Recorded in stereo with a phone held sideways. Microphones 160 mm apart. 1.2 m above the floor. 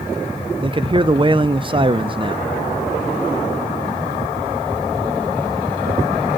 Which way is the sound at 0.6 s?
30° right (ahead or behind).